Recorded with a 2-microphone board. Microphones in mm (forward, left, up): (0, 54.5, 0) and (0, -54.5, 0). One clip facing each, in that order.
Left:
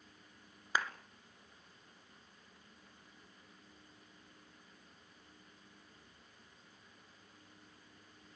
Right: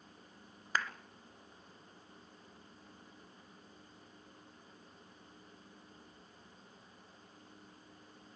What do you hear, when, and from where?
0.8 s a clap: 10° left (ahead or behind), 1.6 m